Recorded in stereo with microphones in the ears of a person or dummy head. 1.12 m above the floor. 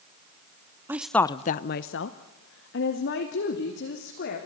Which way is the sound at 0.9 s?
15° right (ahead or behind).